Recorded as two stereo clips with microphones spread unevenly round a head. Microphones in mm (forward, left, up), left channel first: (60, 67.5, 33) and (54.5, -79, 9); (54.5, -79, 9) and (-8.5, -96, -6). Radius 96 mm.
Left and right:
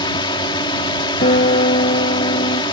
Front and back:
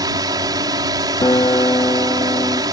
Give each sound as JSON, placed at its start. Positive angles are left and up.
{"t": 0.0, "sound": "a drone", "azimuth_deg": 155}
{"t": 1.2, "sound": "a guitar", "azimuth_deg": 65}